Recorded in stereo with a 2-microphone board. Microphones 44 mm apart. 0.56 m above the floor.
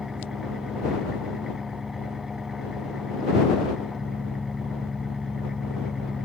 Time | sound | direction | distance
0.0 | an engine running | 10° right (ahead or behind) | ?